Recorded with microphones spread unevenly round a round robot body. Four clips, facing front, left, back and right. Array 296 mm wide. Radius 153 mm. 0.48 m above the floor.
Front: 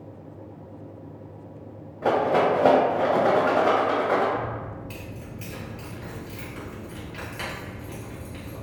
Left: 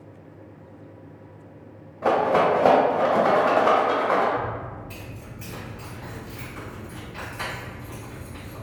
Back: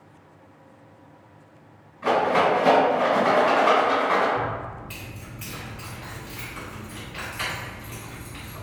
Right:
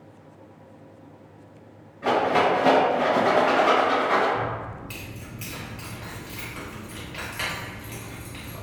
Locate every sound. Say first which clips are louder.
2.0 s a rattle: left 1 dB, even; 55° left, 0.7 m
4.3 s keys jangling: even, back 2 dB; 40° right, 1.3 m